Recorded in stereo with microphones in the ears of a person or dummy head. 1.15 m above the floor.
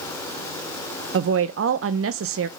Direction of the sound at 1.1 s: 70° right (ahead or behind).